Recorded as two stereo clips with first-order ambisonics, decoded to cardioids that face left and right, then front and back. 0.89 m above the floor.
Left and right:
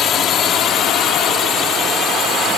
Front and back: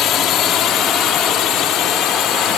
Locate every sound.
0.0 s a drone: 40° left; by 2.6 s 35° left